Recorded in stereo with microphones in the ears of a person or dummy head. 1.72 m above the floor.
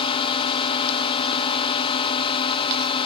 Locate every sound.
0.0 s a drone: 30° left (ahead or behind)